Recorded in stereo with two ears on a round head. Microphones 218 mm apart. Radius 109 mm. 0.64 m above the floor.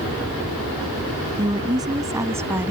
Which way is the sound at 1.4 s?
20° right (ahead or behind).